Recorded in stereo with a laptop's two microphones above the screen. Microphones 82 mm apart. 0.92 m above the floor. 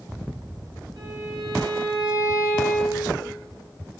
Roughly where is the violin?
Right.